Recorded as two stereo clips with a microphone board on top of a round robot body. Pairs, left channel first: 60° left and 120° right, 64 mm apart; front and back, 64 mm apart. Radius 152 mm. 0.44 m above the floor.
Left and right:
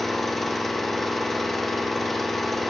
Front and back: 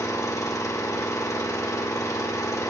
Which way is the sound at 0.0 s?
30° right.